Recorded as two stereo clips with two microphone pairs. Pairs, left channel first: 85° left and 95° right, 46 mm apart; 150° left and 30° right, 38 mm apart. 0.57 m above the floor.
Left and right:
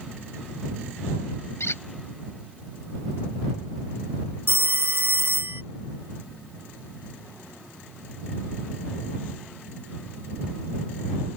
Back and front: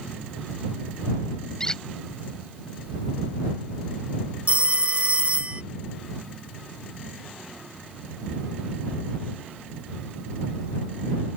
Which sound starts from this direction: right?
A phone ringing, at 4.5 s.